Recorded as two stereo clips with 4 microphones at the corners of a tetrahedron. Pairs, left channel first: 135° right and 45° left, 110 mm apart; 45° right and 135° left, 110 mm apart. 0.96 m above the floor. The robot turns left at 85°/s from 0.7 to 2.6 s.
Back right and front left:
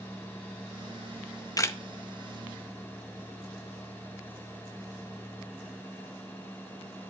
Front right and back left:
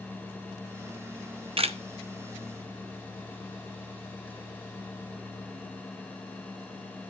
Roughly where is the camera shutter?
Behind.